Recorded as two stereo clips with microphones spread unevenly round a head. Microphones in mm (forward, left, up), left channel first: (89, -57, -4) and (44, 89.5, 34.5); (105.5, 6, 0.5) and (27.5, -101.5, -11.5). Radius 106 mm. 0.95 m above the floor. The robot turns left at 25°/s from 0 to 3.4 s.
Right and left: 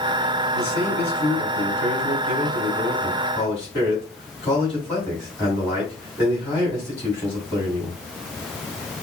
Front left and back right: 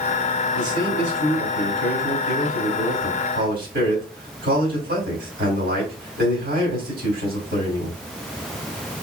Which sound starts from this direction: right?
A man speaking, at 0.5 s.